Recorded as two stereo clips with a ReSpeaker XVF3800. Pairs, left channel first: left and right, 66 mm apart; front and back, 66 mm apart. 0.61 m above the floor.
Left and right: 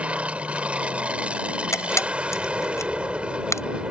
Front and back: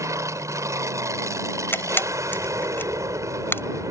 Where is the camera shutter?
55° left.